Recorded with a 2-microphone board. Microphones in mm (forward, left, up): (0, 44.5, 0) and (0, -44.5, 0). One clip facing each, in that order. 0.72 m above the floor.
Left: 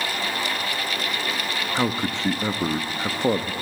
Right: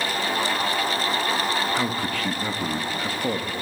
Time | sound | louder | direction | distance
1.8 | a man speaking | left 1 dB | 25° left (ahead or behind) | 0.5 m